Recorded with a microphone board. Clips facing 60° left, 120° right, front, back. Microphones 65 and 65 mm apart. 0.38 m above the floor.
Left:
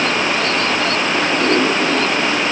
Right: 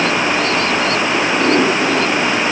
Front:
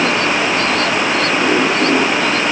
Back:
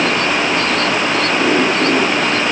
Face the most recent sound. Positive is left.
No sound to turn to.